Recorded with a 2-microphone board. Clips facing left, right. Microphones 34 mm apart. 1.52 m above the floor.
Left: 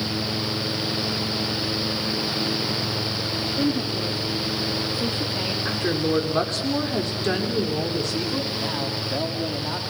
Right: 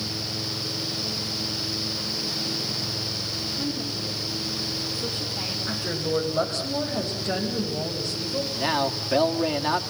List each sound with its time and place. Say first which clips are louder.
3.6 s a woman speaking: left 8 dB; 65° left (ahead or behind), 2.5 m
5.7 s a woman speaking: left 5 dB; 70° left (ahead or behind), 5.5 m
8.6 s a man speaking: right 2 dB; 30° right (ahead or behind), 3 m